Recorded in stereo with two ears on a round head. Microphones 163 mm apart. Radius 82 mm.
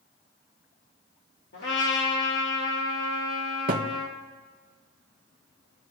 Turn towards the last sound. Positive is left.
turn(degrees=-50)  # may be behind; listen again after turning